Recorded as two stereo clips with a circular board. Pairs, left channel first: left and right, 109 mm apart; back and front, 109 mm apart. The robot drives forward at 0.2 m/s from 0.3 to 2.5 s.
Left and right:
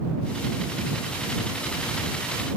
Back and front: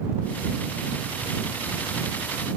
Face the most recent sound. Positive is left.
No sound to turn to.